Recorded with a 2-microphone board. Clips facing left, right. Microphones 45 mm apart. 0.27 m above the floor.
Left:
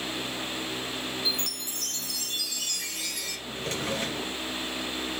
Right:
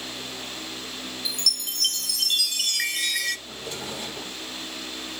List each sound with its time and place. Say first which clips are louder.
1.2 s a chime: right 1 dB; 80° right, 1.1 m
3.5 s a drawer: left 3 dB; 75° left (ahead or behind), 2.5 m